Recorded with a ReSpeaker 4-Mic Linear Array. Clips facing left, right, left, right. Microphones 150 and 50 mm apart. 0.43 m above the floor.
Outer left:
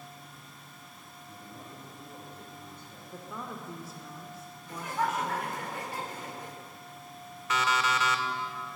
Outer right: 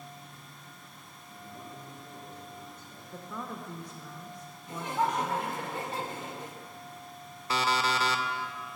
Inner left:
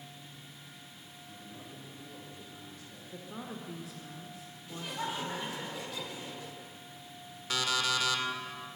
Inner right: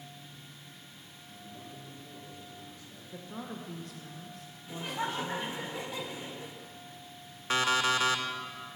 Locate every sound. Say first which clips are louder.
1.3 s a man speaking: outer right 2 dB, inner right 1 dB; 65° left (ahead or behind), 4 m
3.1 s a woman speaking: outer right 1 dB, inner right 1 dB; 5° left (ahead or behind), 0.8 m
4.7 s laughter: outer right 1 dB, inner right 3 dB; 25° right (ahead or behind), 0.9 m
7.5 s an alarm clock: even, inner right 4 dB; 30° right (ahead or behind), 0.6 m